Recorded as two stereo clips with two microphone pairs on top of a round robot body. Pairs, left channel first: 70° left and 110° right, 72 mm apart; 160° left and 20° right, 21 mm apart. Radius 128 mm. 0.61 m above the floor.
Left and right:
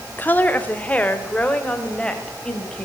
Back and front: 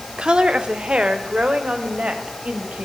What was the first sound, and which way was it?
A woman speaking, 5° left.